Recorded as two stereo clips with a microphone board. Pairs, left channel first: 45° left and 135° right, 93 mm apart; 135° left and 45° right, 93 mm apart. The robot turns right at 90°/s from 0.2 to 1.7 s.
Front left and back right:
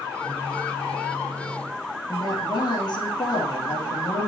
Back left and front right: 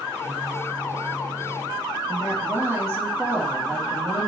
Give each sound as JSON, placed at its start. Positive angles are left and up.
{"t": 2.1, "sound": "a woman speaking", "azimuth_deg": 15, "distance_m": 3.5}